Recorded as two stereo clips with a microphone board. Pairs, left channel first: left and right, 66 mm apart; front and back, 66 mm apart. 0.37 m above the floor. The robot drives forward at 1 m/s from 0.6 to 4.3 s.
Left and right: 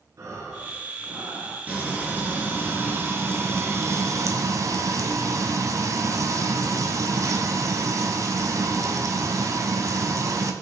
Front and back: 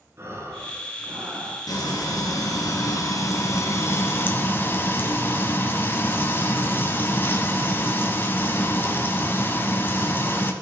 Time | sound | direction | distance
0.2 | breathing | 130° right | 3.5 m
1.7 | frying | 25° right | 4 m